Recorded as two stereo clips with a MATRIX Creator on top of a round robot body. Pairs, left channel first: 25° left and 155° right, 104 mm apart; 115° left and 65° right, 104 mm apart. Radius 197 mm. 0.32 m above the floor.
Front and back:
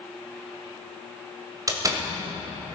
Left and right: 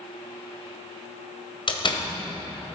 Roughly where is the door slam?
Behind left.